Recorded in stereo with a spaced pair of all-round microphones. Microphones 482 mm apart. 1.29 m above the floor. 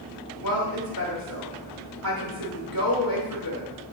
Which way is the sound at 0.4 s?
45° left (ahead or behind).